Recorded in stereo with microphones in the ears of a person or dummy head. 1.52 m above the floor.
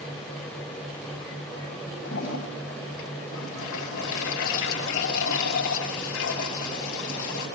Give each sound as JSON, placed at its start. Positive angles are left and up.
{"t": 2.0, "sound": "a toilet flushing", "side_deg": 80, "distance_m": 7.0}